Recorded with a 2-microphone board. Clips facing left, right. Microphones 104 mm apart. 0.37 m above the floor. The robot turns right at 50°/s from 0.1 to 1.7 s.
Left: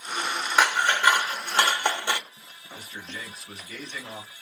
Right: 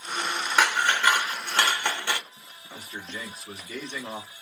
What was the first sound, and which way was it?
Scissors, 10° left (ahead or behind).